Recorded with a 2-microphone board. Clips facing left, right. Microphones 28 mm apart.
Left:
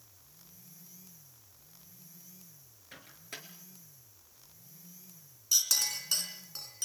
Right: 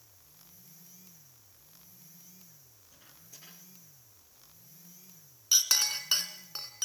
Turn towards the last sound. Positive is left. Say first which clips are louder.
# right 3 dB
turn(degrees=-40)  # may be behind; listen again after turning